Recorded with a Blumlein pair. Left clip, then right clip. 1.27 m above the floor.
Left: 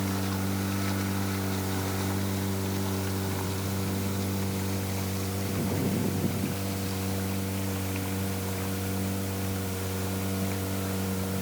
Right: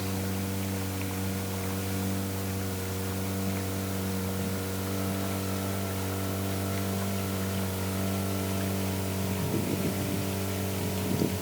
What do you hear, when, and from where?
Only background noise.